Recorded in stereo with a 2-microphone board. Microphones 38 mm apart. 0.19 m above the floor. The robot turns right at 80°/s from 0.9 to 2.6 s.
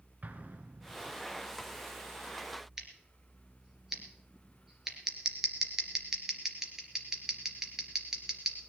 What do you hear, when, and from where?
0.2 s an explosion: 45° right (ahead or behind), 1.0 m; by 1.2 s 60° right (ahead or behind), 1.0 m
2.8 s scissors: 15° right (ahead or behind), 2.5 m